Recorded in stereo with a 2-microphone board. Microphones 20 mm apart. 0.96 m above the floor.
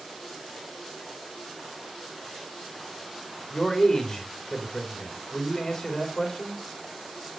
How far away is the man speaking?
About 4.5 m.